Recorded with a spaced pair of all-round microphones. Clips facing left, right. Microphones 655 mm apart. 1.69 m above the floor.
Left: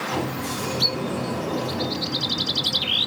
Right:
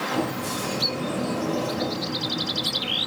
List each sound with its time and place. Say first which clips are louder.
0.1 s a sliding door: even; 75° left (ahead or behind), 5.5 m